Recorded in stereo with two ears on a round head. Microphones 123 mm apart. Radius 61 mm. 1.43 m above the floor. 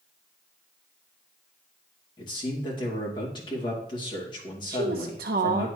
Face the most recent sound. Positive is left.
turn(degrees=-80)